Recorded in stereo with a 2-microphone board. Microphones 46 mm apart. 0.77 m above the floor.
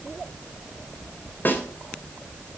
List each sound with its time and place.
1.4 s a snare drum: 45° left (ahead or behind), 3 m